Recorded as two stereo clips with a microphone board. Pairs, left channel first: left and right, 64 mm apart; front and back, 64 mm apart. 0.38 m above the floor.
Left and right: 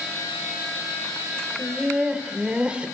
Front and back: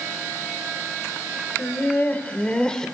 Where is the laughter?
25° right, 1.7 m; by 2.9 s 60° right, 1.4 m.